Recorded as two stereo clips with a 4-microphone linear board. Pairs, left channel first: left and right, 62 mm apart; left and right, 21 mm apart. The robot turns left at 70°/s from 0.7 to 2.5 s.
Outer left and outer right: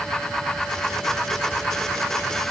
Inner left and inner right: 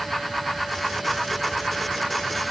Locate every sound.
Only background noise.